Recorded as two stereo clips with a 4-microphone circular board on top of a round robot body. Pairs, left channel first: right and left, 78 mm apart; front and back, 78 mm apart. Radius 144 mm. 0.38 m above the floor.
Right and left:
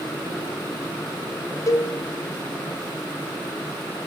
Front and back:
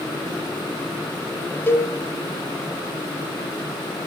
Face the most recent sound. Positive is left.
turn(degrees=-55)